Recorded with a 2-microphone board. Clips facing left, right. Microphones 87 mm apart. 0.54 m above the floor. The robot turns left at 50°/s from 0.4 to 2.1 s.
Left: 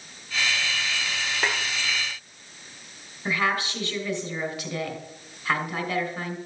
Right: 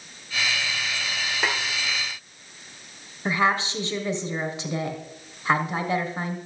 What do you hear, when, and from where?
1.4 s a snare drum: centre (ahead or behind), 1.6 m; by 1.6 s 10° right (ahead or behind), 1.6 m
3.2 s a woman speaking: 25° right (ahead or behind), 2.5 m